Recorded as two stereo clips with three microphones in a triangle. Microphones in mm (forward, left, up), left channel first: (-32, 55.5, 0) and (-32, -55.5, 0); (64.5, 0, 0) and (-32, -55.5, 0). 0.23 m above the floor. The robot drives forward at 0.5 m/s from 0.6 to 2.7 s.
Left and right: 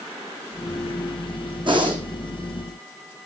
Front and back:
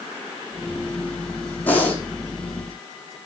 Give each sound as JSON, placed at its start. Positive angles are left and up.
{"t": 1.7, "sound": "breathing", "azimuth_deg": -45, "distance_m": 5.0}